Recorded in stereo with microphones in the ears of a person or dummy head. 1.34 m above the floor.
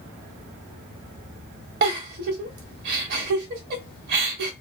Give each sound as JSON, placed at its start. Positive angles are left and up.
{"t": 1.8, "sound": "a giggle", "side_deg": -55, "distance_m": 1.0}